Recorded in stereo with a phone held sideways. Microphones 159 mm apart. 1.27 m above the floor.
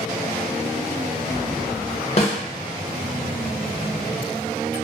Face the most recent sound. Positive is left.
turn(degrees=40)  # may be behind; listen again after turning